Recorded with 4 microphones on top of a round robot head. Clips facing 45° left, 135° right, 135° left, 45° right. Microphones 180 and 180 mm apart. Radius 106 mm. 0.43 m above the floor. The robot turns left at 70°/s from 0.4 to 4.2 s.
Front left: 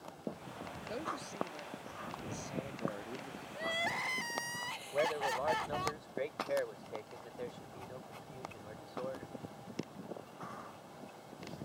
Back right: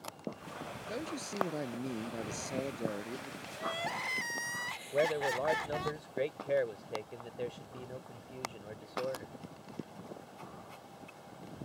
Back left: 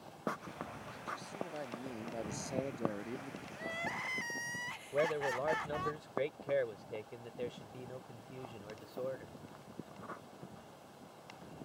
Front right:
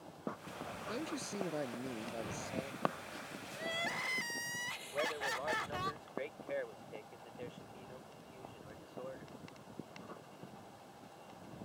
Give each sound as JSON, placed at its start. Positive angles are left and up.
{"t": 0.9, "sound": "a man speaking", "azimuth_deg": -55}
{"t": 3.5, "sound": "crying", "azimuth_deg": -10}
{"t": 4.9, "sound": "a man speaking", "azimuth_deg": 170}